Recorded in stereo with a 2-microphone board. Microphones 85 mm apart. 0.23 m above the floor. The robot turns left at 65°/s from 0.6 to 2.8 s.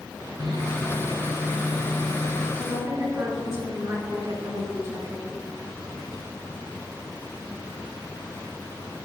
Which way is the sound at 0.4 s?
110° right.